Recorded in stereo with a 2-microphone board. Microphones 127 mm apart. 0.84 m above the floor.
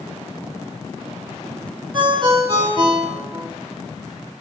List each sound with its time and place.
1.9 s a ringtone: 35° right (ahead or behind), 1.4 m